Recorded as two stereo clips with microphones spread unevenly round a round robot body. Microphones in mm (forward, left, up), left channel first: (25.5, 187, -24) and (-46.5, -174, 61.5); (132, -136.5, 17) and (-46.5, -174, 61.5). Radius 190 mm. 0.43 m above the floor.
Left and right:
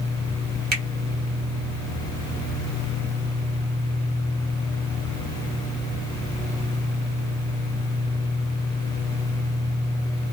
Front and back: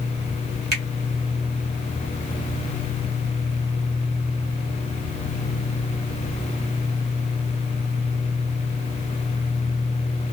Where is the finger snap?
170° right, 1.3 m.